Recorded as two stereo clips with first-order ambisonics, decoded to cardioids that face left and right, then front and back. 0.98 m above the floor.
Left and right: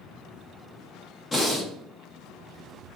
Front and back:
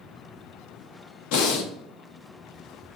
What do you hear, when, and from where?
1.3 s breathing: 15° left, 1.1 m